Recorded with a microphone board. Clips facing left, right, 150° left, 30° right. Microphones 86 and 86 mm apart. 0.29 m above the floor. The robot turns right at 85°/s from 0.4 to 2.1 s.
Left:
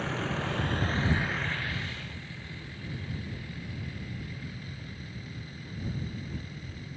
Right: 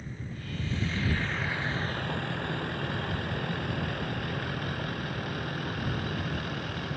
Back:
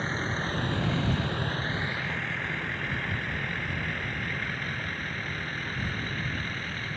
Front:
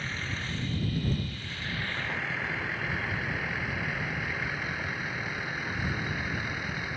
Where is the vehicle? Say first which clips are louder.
Left 10 dB, back 5 dB; 95° left; by 7.0 s 110° right.